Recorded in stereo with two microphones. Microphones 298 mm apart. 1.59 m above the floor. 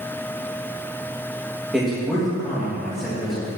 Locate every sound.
1.7 s a man speaking: centre (ahead or behind), 2 m